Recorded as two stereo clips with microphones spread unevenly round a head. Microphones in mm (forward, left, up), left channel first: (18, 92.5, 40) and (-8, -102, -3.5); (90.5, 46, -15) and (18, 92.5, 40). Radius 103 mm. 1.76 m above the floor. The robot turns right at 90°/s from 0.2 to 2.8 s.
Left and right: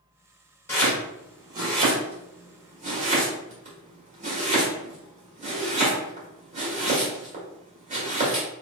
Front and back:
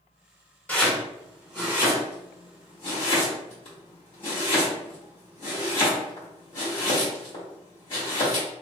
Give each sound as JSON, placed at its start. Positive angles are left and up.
{"t": 0.7, "sound": "chopping", "azimuth_deg": 105, "distance_m": 1.5}